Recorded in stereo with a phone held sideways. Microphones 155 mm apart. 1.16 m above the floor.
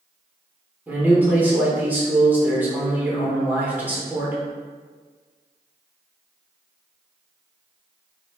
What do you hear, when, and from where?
0.9 s a man speaking: 10° right (ahead or behind), 0.8 m